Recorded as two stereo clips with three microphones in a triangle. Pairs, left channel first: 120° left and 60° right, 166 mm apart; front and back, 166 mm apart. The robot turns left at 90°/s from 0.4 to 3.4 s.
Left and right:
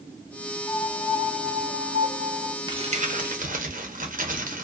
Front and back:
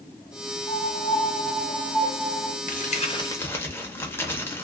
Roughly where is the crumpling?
Ahead.